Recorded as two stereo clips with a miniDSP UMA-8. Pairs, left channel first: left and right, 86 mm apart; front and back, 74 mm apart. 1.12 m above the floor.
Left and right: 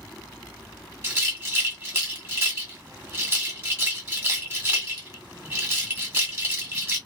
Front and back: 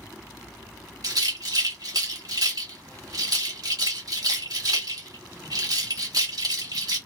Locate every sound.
1.0 s a rattle: 150° right, 1.6 m